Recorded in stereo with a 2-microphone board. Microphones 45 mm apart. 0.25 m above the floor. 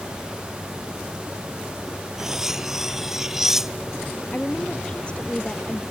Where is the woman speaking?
25° left (ahead or behind).